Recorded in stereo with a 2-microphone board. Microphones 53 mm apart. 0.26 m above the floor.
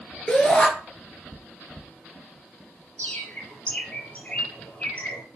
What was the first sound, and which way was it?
A shout, 20° left (ahead or behind).